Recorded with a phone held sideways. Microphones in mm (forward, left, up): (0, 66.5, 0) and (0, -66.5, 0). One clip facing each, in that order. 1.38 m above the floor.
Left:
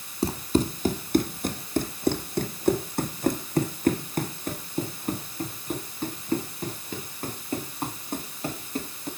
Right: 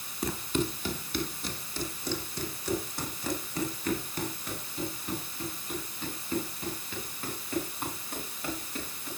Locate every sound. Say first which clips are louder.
0.2 s running footsteps: left 6 dB; 30° left (ahead or behind), 2 m; by 9.1 s 35° left (ahead or behind), 9.5 m